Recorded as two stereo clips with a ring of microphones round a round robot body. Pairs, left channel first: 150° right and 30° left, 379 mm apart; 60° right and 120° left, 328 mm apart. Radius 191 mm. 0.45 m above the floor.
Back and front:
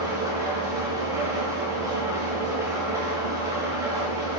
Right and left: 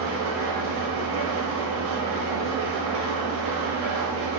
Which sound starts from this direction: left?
An engine running, at 0.0 s.